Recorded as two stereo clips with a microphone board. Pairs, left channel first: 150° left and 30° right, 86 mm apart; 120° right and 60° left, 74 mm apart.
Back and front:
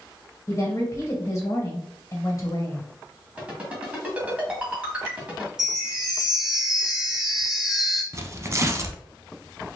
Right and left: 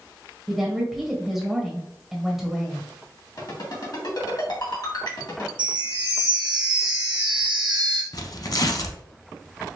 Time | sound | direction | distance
0.5 | a woman speaking | 145° left | 1.4 m
3.4 | a ringtone | 100° right | 1.7 m
5.6 | a chime | 55° left | 1.2 m
8.1 | tearing paper | 85° right | 0.5 m